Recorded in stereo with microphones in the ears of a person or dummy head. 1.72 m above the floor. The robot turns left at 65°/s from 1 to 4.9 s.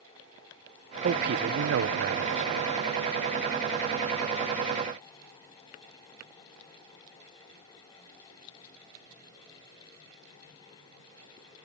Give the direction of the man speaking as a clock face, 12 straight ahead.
2 o'clock.